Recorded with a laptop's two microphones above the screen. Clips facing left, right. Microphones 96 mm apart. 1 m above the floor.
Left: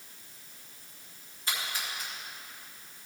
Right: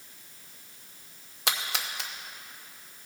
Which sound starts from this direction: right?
A splash, at 1.5 s.